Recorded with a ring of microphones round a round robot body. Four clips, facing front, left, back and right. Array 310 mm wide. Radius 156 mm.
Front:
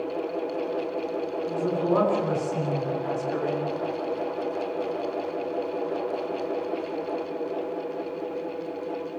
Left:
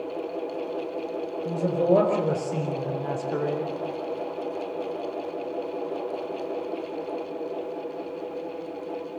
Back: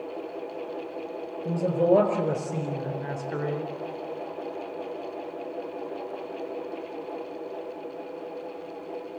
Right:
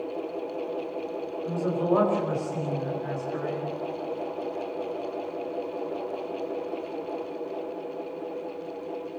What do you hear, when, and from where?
1.4 s a man speaking: 145° left, 5.5 m; by 3.7 s 100° left, 3.5 m